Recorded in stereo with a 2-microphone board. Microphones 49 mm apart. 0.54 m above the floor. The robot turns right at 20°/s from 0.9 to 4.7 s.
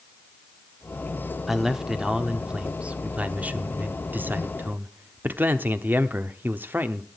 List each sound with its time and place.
1.5 s a man speaking: 170° right, 0.9 m; by 7.1 s 105° right, 0.9 m